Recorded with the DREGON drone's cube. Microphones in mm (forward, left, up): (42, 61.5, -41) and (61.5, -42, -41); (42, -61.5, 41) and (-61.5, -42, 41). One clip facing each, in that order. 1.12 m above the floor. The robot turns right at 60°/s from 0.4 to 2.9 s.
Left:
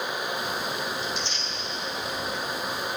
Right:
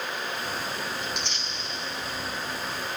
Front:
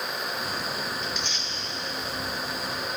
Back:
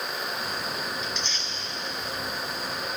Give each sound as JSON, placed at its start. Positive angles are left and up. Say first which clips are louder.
{"t": 1.0, "sound": "tearing paper", "louder": "left 2 dB, front 1 dB", "azimuth_deg": -105, "distance_m": 3.0}